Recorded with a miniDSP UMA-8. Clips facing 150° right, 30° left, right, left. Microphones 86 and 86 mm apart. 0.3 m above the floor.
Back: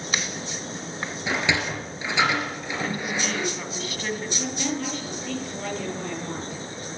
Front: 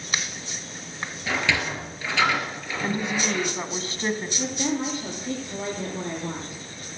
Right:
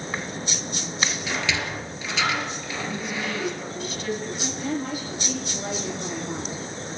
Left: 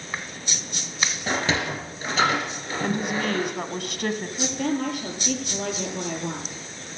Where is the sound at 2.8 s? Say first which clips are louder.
Front 3 dB, left 6 dB; 85° left, 1.8 m.